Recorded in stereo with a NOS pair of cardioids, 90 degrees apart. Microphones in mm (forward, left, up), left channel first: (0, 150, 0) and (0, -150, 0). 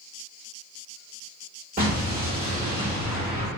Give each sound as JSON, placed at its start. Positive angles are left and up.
{"t": 1.8, "sound": "an explosion", "azimuth_deg": -25, "distance_m": 1.5}